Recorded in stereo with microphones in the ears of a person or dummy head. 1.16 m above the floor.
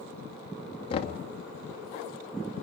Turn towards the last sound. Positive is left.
turn(degrees=40)  # may be behind; listen again after turning